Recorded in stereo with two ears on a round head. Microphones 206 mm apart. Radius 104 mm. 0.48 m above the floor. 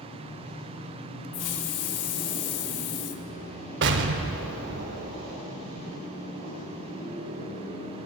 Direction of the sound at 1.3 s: 75° left (ahead or behind).